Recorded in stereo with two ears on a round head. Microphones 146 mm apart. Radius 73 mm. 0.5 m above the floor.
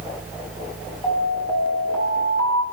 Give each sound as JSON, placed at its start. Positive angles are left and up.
{"t": 1.0, "sound": "an alarm", "side_deg": 25, "distance_m": 5.5}